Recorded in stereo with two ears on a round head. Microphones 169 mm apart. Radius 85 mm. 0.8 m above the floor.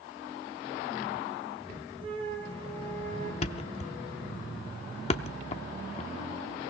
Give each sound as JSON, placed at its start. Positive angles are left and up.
{"t": 2.0, "sound": "a flute", "side_deg": -30, "distance_m": 3.0}
{"t": 3.4, "sound": "a thud", "side_deg": 35, "distance_m": 0.7}